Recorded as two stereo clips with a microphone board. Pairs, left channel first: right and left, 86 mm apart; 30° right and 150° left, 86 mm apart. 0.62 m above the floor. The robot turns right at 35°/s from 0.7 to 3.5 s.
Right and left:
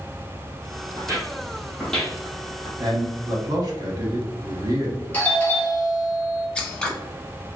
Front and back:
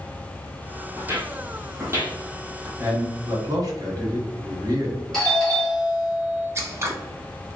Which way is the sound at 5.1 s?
110° right.